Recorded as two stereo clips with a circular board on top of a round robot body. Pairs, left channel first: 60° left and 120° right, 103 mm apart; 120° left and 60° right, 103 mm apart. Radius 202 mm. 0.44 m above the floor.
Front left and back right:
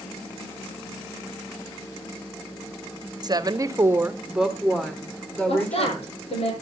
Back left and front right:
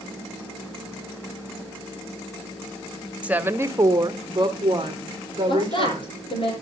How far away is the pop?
No pop in this recording.